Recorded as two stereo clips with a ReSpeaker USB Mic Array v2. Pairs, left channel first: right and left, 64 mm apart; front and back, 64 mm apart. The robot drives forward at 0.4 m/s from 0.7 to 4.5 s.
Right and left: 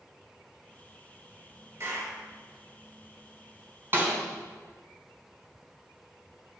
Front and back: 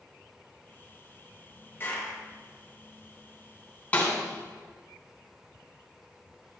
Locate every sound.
1.8 s a clap: 50° left, 2.5 m; by 2.2 s 55° left, 2.5 m
3.9 s a snare drum: 55° left, 2.5 m; by 4.2 s 60° left, 2.5 m